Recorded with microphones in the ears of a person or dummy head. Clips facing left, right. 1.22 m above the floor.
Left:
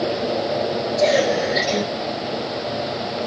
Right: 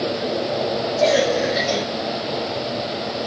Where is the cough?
15° left (ahead or behind), 2 m.